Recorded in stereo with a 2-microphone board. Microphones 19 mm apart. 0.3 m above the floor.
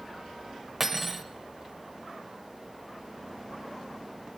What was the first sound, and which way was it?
Cutlery clinking, 15° right (ahead or behind).